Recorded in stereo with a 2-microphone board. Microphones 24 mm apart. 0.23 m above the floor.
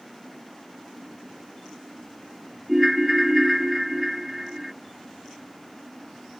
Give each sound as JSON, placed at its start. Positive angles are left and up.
{"t": 2.7, "sound": "a ringtone", "side_deg": -15}